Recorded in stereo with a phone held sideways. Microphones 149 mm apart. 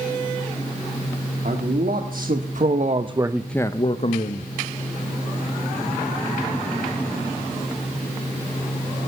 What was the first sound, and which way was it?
A man speaking, 75° right (ahead or behind).